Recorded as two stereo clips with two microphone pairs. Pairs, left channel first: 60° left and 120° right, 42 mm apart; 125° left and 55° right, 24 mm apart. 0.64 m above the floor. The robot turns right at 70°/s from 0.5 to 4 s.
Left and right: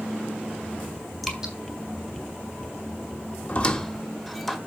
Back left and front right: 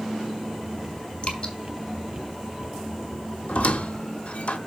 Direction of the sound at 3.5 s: 115° left.